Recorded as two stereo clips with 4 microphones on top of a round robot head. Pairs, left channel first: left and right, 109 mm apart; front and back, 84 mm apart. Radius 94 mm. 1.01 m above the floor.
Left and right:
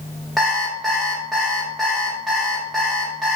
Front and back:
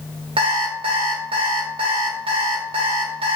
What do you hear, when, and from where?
0.4 s an alarm clock: straight behind, 0.7 m